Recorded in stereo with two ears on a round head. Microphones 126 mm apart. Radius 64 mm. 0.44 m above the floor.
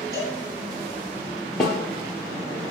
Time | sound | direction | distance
0.1 | a cowbell | 25° right (ahead or behind) | 2.5 m
1.6 | a snare drum | 5° left (ahead or behind) | 2.5 m